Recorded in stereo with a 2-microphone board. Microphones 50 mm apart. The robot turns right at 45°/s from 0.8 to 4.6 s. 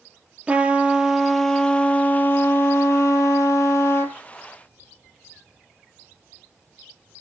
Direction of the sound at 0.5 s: 20° right.